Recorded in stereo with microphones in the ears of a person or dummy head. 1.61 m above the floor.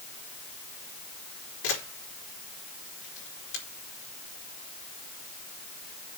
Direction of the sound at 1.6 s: 75° left (ahead or behind).